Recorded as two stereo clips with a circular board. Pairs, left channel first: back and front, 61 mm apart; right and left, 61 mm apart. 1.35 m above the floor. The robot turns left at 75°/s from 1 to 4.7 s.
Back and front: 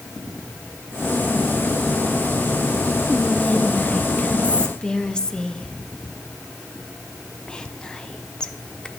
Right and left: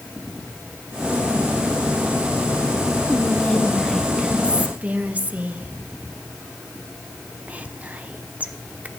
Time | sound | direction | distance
3.1 | whispering | 115° right | 0.5 m